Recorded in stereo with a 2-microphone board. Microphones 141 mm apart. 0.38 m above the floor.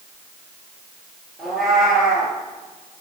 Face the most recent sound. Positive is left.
turn(degrees=0)  # may be behind; listen again after turning